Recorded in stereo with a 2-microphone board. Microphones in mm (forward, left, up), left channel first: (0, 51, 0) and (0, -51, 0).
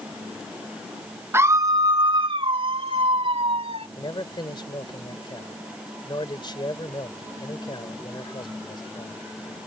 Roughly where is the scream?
Right.